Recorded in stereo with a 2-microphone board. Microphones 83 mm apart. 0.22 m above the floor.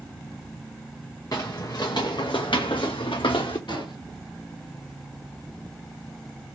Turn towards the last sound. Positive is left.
turn(degrees=65)  # may be behind; listen again after turning